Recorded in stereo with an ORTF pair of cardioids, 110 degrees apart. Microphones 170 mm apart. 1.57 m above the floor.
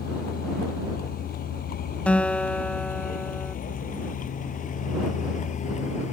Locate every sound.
0.0 s a vehicle: 60° left; by 6.1 s 45° left
2.1 s a guitar: 5° left